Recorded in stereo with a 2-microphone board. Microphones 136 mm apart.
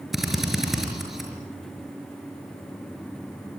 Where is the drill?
Centre (ahead or behind), 5 m.